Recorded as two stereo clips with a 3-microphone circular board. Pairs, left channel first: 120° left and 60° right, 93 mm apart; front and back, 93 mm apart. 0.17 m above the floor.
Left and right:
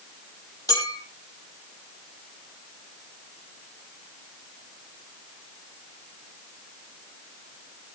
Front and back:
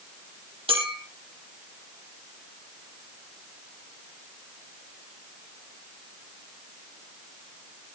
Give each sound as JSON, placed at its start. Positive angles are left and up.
{"t": 0.7, "sound": "a clink", "azimuth_deg": 170, "distance_m": 4.5}